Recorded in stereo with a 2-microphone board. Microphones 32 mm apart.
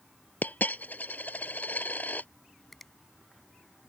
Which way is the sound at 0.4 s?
65° left (ahead or behind).